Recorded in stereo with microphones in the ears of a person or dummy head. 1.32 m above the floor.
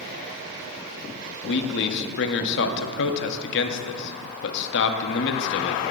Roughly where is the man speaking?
Left.